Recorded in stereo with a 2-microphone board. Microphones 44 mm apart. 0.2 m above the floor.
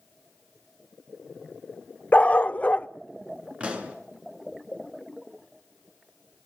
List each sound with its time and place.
2.1 s a dog barking: 35° left (ahead or behind), 0.5 m
3.6 s a pop: 30° right (ahead or behind), 3 m